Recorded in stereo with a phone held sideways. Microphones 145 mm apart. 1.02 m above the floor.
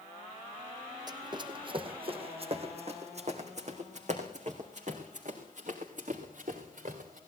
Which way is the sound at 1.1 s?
30° right (ahead or behind).